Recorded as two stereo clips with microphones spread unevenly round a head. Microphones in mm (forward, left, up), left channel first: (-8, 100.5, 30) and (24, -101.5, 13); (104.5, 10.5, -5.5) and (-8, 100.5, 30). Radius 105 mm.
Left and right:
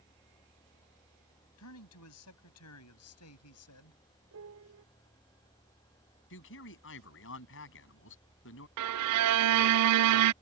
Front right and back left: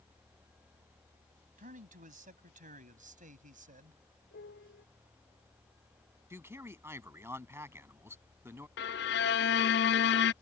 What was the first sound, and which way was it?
A man speaking, 115° left.